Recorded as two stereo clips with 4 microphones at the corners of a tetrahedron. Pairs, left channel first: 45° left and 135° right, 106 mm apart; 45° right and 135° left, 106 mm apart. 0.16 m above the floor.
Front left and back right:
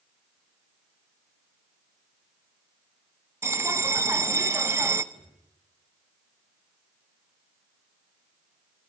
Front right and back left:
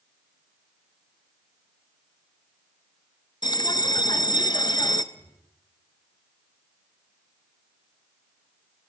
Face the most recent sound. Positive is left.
turn(degrees=-170)